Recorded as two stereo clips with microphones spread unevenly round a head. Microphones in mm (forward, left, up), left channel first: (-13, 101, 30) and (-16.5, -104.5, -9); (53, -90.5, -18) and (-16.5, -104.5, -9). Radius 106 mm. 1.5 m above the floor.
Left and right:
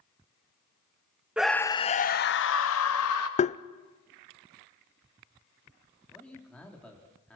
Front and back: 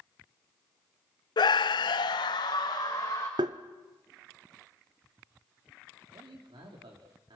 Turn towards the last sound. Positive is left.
turn(degrees=175)